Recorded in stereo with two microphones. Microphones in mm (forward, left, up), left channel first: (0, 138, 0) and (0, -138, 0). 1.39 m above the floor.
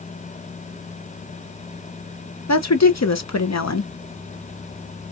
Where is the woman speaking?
70° left (ahead or behind), 0.9 m.